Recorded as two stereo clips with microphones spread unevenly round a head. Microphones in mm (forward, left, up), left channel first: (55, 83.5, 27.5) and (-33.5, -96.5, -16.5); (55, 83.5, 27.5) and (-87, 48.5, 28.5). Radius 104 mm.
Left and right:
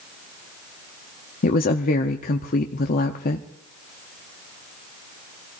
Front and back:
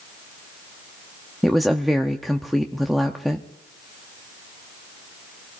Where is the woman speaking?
105° left, 0.8 m.